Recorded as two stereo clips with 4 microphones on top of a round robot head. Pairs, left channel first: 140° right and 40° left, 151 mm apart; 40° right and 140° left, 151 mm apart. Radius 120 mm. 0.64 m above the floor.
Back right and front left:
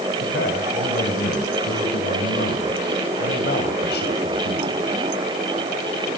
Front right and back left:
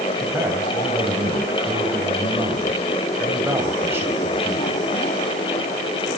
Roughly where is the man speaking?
Behind right.